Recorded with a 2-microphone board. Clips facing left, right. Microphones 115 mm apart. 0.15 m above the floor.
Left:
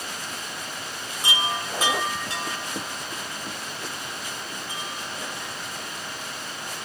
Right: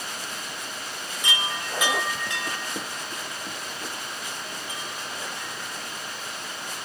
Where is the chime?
35° left (ahead or behind), 2.5 m.